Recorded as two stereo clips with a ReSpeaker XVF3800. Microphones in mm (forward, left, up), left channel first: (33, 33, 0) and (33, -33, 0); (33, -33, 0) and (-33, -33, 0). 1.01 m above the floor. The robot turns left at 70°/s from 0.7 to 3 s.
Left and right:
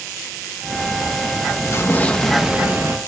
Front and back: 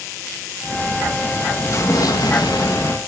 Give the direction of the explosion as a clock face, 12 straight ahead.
10 o'clock.